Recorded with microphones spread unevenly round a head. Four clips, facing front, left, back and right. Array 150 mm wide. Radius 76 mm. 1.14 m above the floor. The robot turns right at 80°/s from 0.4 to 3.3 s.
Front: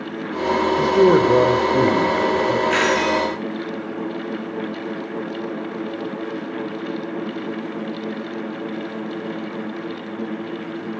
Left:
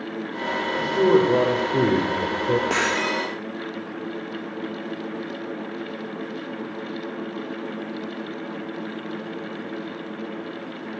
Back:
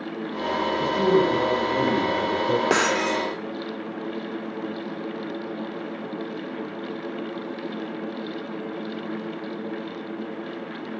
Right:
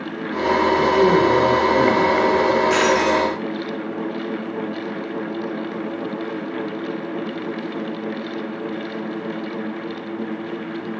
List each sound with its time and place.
0.8 s a man speaking: 30° right, 3.5 m; by 2.6 s 120° left, 3.5 m
2.7 s breaking glass: 175° left, 6.5 m; by 3.3 s 135° right, 6.5 m